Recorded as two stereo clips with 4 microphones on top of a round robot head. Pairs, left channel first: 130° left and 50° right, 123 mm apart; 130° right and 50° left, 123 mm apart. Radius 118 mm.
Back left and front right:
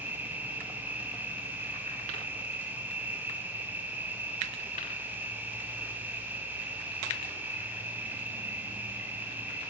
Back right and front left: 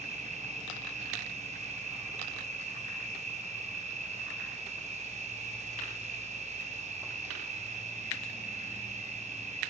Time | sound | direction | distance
0.0 | an insect | 25° left | 5 m